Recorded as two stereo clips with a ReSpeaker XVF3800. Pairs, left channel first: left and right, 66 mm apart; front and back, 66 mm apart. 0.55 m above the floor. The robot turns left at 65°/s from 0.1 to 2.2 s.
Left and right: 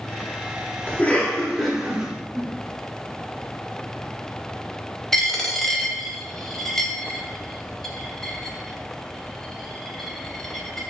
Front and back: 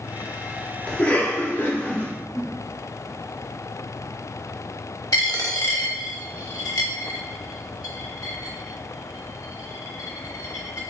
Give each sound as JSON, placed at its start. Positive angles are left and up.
{"t": 0.9, "sound": "a cough", "azimuth_deg": 55, "distance_m": 0.9}
{"t": 2.3, "sound": "a whoosh", "azimuth_deg": 20, "distance_m": 1.7}
{"t": 5.1, "sound": "a dropped coin", "azimuth_deg": 5, "distance_m": 0.8}